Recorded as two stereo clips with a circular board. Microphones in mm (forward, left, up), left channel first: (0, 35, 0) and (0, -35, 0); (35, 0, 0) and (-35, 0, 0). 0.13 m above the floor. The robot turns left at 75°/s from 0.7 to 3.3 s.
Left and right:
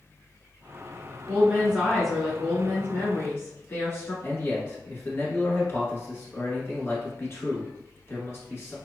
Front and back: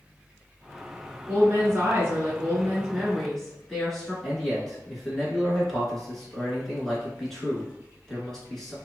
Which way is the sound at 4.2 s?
85° left.